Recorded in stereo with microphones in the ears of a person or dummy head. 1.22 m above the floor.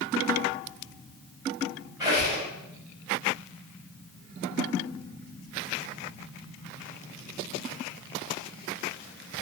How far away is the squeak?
About 2.0 m.